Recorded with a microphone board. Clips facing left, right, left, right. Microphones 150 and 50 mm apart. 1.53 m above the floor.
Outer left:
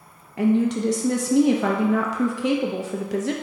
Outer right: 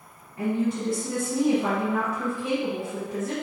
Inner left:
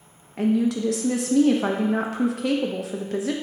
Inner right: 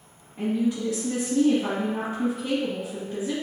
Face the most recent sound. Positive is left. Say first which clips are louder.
# outer left 6 dB, inner left 4 dB
turn(degrees=85)